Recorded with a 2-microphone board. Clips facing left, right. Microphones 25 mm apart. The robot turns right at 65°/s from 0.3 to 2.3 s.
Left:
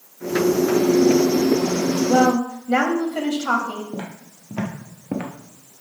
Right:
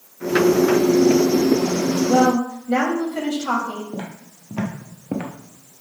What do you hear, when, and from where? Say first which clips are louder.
2.1 s a woman speaking: even; 60° left (ahead or behind), 1.0 m
3.9 s footsteps: even; 30° left (ahead or behind), 1.5 m; by 5.3 s 20° left (ahead or behind), 0.8 m